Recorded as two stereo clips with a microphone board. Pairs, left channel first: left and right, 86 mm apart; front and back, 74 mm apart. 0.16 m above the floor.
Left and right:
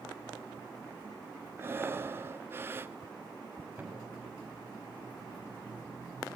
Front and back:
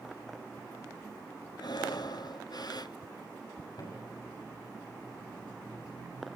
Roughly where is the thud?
Ahead.